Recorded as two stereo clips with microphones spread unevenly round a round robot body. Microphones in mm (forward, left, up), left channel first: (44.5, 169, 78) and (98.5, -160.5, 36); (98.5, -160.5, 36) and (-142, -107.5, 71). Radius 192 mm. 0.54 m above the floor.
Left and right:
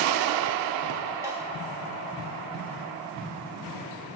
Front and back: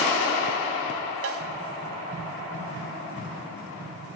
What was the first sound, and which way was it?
A snare drum, 160° right.